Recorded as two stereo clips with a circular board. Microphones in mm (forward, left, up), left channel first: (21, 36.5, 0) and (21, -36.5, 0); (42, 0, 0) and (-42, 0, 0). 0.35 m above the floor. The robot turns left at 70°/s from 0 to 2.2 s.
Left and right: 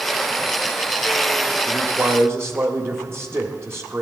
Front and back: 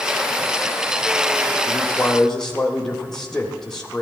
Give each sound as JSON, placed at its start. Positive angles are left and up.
{"t": 1.7, "sound": "a man speaking", "azimuth_deg": -45, "distance_m": 1.3}